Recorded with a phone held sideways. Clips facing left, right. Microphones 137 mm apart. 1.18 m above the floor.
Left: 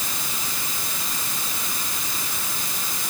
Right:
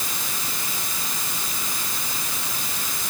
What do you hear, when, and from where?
Only background noise.